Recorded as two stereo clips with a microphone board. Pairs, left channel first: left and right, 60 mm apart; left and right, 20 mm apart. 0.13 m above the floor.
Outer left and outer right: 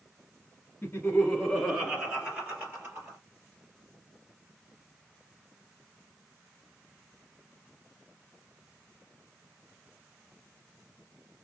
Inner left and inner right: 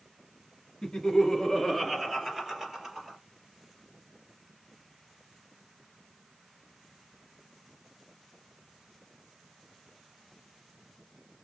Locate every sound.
0.8 s laughter: 25° left (ahead or behind), 1.5 m; by 3.2 s 40° right (ahead or behind), 2.5 m